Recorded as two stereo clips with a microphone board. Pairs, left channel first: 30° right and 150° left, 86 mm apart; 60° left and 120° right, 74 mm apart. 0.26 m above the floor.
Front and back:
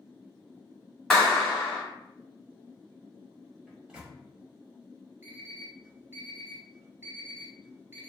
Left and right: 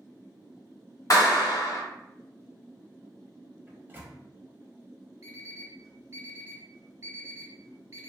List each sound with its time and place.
1.1 s a clap: 50° left, 1.3 m
3.7 s a microwave: 140° right, 0.8 m
5.2 s an alarm clock: 155° right, 0.8 m